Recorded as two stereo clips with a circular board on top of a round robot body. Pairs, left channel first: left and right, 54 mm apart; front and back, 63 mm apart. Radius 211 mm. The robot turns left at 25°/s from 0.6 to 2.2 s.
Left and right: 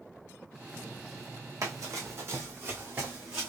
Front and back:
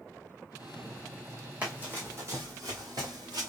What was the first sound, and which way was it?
Running footsteps, 110° right.